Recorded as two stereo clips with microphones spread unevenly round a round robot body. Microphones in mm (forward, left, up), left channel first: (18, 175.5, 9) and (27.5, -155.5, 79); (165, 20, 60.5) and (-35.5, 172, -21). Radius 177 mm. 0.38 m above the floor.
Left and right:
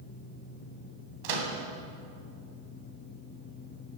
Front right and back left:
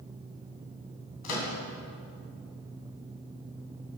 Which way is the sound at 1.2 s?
90° right.